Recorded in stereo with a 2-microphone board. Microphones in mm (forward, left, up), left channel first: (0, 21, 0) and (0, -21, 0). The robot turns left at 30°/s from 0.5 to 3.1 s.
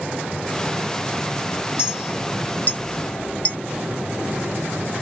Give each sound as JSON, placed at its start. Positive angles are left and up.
{"t": 1.8, "sound": "a clink", "side_deg": 65}